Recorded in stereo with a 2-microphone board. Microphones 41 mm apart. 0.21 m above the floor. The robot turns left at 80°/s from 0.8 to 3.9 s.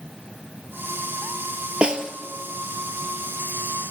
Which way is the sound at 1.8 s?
25° right (ahead or behind).